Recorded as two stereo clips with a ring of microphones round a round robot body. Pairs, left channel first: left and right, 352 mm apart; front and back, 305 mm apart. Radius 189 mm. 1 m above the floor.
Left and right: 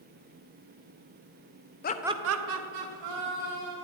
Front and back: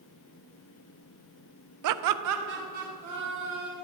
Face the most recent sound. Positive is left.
turn(degrees=-100)